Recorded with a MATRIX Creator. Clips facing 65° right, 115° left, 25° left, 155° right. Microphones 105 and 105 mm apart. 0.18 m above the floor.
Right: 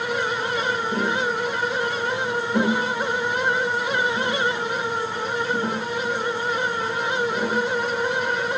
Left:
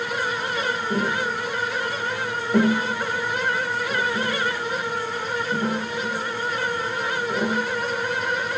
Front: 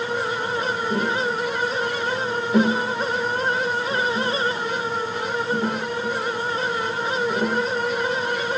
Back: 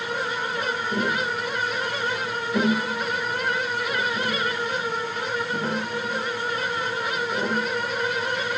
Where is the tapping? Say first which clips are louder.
Right 1 dB, front 2 dB; 70° left, 10 m.